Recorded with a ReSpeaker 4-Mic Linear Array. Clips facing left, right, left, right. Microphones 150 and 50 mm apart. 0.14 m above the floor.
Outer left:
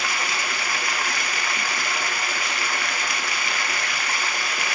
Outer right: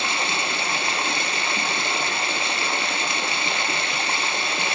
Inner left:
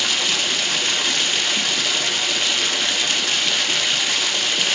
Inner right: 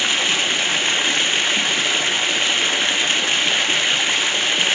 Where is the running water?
25° right (ahead or behind), 0.7 m.